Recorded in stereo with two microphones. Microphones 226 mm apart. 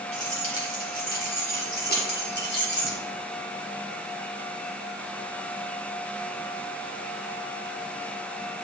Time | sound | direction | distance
0.1 | keys jangling | 35° left (ahead or behind) | 3 m